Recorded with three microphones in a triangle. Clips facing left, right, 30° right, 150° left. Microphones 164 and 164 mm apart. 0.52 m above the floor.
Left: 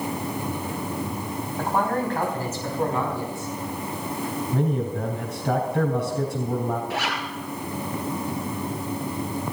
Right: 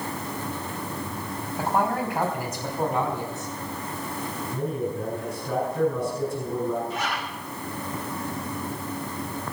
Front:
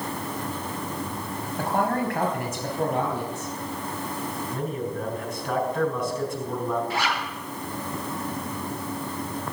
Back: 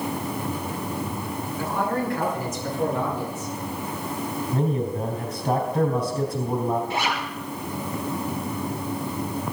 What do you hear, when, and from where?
1.6 s a man speaking: 5° right, 4 m; by 3.5 s 25° right, 5 m
4.5 s a man speaking: 100° left, 4 m
6.9 s a zipper: 85° left, 4 m